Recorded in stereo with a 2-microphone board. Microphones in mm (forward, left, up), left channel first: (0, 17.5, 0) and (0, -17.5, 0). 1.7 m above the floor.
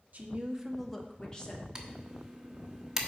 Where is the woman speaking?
45° right (ahead or behind), 0.9 m; by 1.6 s 25° left (ahead or behind), 1.7 m.